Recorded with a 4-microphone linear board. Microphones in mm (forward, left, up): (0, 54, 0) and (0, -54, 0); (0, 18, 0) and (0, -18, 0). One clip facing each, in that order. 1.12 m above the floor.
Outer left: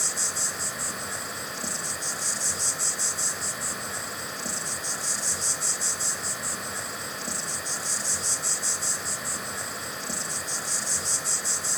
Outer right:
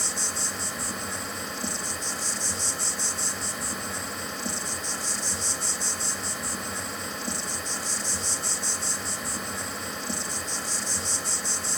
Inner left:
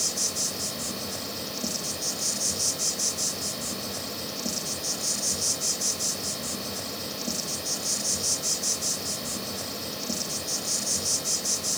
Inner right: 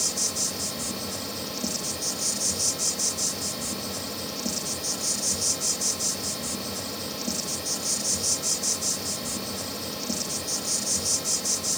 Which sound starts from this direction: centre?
An insect, at 0.0 s.